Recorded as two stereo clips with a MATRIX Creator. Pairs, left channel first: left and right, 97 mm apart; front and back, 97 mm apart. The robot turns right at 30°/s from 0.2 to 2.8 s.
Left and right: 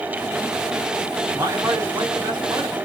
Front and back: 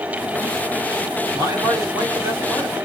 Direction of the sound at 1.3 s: 150° right.